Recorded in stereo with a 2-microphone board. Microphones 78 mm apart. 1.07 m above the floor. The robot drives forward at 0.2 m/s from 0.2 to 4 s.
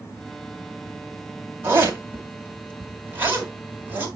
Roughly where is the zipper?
Right.